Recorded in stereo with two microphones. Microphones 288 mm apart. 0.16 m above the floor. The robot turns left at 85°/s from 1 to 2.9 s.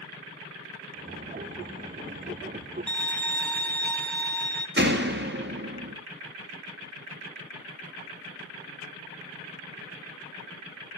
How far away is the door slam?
About 2 m.